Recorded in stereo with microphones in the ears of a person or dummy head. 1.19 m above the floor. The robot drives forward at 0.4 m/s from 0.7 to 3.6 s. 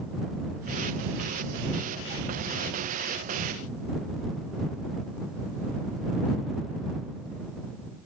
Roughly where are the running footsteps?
I don't hear running footsteps.